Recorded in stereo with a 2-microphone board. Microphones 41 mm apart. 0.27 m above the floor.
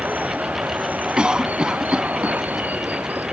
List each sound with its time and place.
0.0 s running water: 45° right (ahead or behind)
1.2 s a cough: 25° right (ahead or behind)